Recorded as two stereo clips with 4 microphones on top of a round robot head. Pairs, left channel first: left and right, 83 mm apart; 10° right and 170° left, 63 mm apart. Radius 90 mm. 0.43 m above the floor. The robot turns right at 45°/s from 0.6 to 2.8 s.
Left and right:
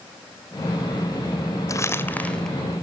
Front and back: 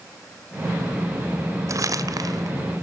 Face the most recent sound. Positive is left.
turn(degrees=-170)